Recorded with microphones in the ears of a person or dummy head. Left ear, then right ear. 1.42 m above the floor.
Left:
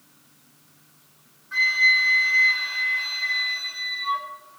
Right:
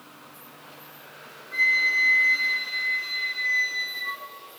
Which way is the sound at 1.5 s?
25° left (ahead or behind).